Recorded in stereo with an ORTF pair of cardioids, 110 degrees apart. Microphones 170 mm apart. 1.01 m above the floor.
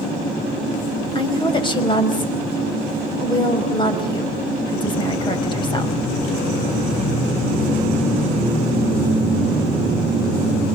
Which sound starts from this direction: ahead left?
A woman speaking, at 1.1 s.